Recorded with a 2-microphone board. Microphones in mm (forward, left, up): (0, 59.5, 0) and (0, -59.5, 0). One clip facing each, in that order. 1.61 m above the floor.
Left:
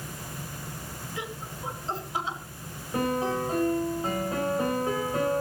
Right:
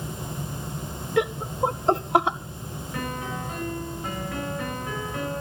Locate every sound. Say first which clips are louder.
1.2 s laughter: right 16 dB; 65° right (ahead or behind), 1.2 m
2.9 s a piano: left 6 dB; 30° left (ahead or behind), 6.5 m